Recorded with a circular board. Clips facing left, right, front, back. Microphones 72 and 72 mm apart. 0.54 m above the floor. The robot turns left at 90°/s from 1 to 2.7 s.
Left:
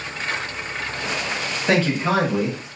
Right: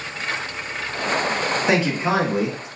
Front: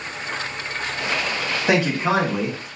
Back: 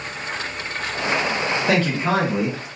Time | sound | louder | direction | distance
1.7 | a man speaking | left 2 dB, front 2 dB | 35° right | 1.0 m